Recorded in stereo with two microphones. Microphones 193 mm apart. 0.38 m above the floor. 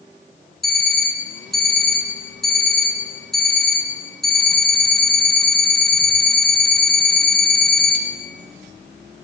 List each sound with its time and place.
0.6 s an alarm clock: centre (ahead or behind), 2 m